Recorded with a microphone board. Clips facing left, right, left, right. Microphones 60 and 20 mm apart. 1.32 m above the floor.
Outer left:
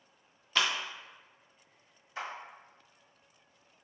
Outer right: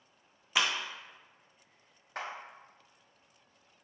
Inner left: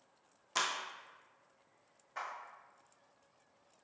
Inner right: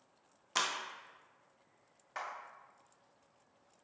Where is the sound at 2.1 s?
60° right (ahead or behind), 1.0 m.